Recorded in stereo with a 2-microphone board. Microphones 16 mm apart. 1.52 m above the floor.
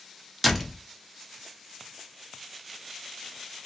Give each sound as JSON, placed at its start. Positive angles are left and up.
{"t": 0.4, "sound": "a door slam", "side_deg": -5, "distance_m": 0.8}